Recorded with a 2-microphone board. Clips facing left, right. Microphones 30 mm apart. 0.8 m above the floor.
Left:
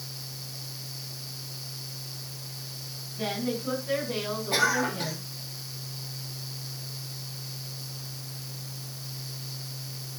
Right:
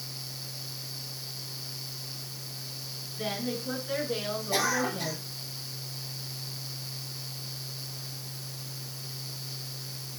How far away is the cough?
About 5 m.